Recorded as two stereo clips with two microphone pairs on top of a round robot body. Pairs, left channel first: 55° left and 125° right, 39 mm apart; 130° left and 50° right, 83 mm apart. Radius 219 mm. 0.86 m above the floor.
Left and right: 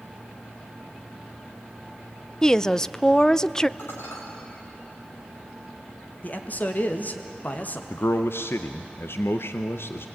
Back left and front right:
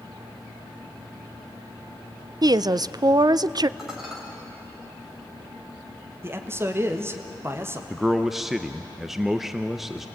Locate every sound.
2.4 s a woman speaking: 25° right, 0.6 m
3.8 s dishes clattering: 35° left, 3.5 m
6.2 s a man speaking: 10° left, 1.9 m
7.9 s a man speaking: 40° left, 0.7 m